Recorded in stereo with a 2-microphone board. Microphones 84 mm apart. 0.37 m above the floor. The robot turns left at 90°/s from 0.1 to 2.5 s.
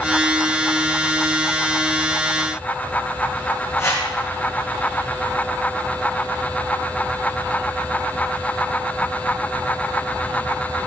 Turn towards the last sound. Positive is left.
turn(degrees=35)  # may be behind; listen again after turning